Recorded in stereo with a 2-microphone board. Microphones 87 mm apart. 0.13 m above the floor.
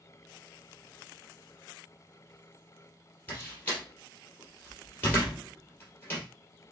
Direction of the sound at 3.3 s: 25° left (ahead or behind).